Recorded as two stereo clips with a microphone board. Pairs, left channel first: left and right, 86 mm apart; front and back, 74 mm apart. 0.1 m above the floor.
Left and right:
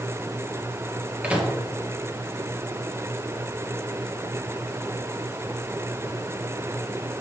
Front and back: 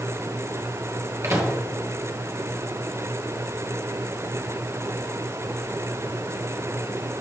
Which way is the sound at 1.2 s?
160° right.